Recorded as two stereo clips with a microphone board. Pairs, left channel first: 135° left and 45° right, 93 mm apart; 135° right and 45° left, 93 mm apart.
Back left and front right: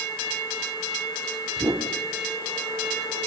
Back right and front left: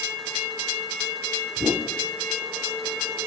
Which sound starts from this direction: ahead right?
A whoosh, at 1.6 s.